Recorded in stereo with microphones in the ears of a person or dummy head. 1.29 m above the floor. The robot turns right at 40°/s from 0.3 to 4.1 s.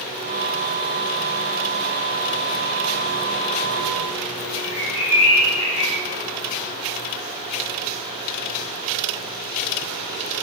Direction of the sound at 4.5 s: 40° right (ahead or behind).